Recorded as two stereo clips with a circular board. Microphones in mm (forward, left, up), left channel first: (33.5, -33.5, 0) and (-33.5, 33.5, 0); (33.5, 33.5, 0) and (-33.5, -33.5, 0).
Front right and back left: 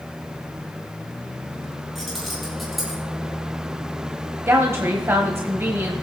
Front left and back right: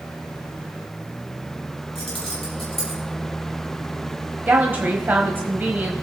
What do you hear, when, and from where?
1.9 s keys jangling: 40° left, 5.5 m; by 3.0 s 45° left, 5 m
4.5 s a woman speaking: 170° left, 1.2 m